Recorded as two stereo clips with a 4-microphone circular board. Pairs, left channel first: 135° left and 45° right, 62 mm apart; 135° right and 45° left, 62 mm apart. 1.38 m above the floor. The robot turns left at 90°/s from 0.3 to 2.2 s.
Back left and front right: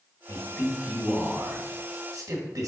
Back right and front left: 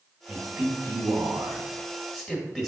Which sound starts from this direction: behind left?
A man speaking, at 0.3 s.